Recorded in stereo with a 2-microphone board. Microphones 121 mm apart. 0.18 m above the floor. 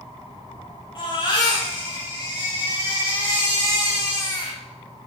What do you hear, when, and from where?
0.9 s a baby crying: 40° left (ahead or behind), 3.5 m